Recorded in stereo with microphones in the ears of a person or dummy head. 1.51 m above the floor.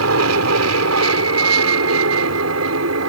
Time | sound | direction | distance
0.0 | an aircraft | 75° right (ahead or behind) | ?